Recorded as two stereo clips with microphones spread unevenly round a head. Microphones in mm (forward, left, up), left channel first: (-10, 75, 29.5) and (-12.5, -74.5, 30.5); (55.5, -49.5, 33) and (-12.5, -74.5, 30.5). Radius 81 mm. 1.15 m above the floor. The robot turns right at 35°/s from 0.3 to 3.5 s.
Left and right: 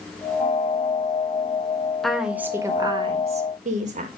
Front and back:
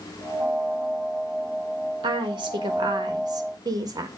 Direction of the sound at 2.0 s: 175° left.